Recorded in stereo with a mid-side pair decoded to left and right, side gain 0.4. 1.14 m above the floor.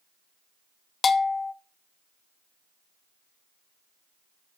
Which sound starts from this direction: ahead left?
A bell, at 1.0 s.